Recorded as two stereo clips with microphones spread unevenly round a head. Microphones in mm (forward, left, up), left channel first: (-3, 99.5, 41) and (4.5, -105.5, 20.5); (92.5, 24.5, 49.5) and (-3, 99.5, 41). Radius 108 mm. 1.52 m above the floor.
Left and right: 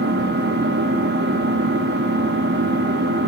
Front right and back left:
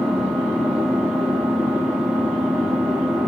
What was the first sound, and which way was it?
An engine running, 130° right.